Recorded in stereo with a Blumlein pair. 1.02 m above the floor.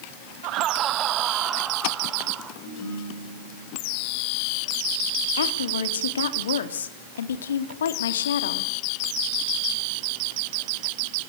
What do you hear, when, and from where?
0.4 s laughter: 40° right, 0.7 m; by 2.5 s 15° right, 3 m
2.6 s a ringtone: 40° left, 8.5 m
5.4 s a woman speaking: 65° left, 2 m